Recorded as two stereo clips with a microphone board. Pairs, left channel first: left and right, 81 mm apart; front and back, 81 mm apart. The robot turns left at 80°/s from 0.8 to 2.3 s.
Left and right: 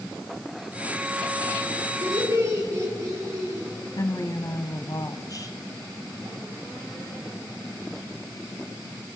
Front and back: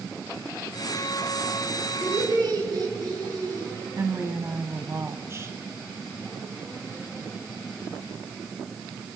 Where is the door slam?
I don't hear a door slam.